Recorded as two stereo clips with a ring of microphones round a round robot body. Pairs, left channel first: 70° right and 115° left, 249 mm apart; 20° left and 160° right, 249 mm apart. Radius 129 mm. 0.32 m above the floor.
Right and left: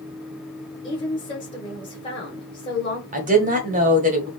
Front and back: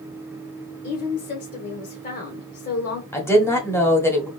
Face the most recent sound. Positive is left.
turn(degrees=95)